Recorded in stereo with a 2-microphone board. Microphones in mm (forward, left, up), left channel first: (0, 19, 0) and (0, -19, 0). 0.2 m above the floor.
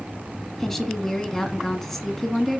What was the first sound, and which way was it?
A woman speaking, 10° left (ahead or behind).